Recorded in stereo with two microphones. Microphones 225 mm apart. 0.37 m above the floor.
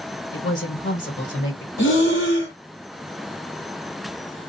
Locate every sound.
0.3 s a woman speaking: 55° left (ahead or behind), 1.5 m
1.8 s breathing: 60° left (ahead or behind), 1.2 m